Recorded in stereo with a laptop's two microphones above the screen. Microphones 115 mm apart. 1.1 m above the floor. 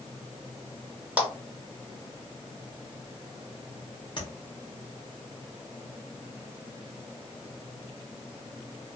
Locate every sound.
1.2 s a clap: 15° right (ahead or behind), 1.3 m
4.2 s tapping: 45° left (ahead or behind), 0.7 m